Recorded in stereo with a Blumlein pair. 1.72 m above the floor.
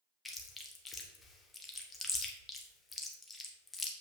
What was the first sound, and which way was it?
Chewing, 10° left.